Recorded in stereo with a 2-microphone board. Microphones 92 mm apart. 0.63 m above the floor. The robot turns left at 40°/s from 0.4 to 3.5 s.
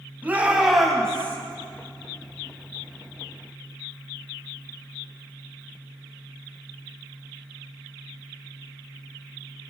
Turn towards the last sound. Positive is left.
turn(degrees=75)